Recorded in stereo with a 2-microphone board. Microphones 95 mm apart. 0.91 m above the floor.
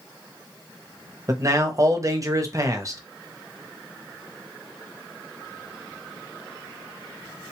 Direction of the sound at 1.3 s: 35° right (ahead or behind).